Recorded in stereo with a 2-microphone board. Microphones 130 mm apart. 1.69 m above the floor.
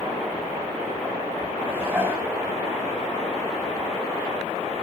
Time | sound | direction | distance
1.7 | dishes clattering | 15° right (ahead or behind) | 7 m